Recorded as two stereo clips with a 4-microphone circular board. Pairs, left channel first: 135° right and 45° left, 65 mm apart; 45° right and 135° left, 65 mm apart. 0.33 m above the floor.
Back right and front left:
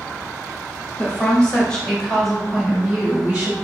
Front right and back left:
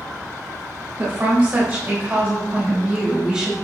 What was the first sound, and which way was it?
A woman speaking, 165° left.